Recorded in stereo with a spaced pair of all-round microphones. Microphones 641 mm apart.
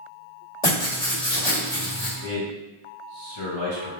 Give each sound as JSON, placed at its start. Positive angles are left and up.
{"t": 0.6, "sound": "writing", "side_deg": 60, "distance_m": 1.9}
{"t": 2.2, "sound": "a man speaking", "side_deg": 65, "distance_m": 1.4}